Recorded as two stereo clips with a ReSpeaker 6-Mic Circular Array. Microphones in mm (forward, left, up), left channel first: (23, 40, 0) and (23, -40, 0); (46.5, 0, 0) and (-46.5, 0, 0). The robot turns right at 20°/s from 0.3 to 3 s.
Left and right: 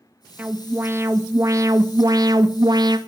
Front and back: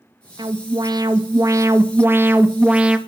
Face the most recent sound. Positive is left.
turn(degrees=-100)